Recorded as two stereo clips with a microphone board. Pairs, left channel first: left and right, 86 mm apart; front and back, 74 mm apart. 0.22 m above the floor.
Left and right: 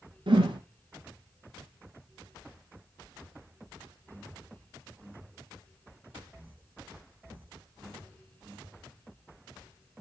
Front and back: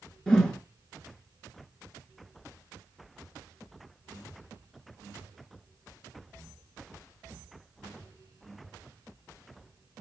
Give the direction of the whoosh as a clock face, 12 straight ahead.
3 o'clock.